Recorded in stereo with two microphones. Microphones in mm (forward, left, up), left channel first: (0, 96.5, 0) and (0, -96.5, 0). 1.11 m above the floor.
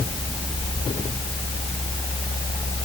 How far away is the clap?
No clap in this recording.